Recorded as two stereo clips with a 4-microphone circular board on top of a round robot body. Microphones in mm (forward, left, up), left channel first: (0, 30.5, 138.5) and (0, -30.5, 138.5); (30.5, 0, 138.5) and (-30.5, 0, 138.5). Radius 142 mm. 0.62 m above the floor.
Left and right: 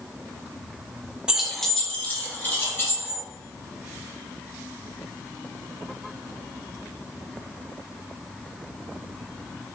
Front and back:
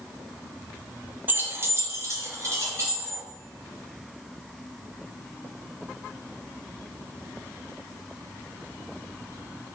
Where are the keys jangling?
155° right, 0.6 m; by 3.2 s 140° left, 1.5 m.